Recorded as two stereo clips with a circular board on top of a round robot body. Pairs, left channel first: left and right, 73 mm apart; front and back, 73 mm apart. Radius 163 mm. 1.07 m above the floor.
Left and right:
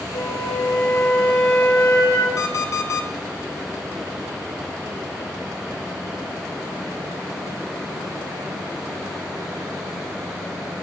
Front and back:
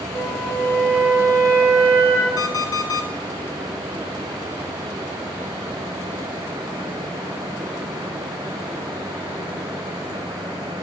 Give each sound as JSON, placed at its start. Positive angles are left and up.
{"t": 0.1, "sound": "a flute", "azimuth_deg": 55, "distance_m": 2.5}
{"t": 2.4, "sound": "an alarm clock", "azimuth_deg": 40, "distance_m": 0.8}